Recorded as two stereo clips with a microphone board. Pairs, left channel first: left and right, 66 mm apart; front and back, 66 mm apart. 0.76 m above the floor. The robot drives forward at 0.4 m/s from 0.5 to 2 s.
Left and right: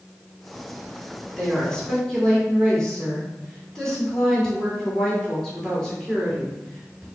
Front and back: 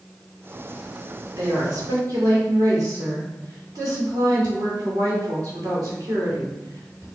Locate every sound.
1.4 s a woman speaking: 170° left, 2 m